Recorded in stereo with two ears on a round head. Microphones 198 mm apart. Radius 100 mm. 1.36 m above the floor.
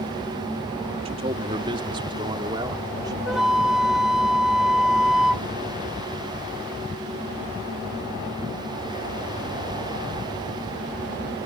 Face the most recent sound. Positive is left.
turn(degrees=0)  # may be behind; listen again after turning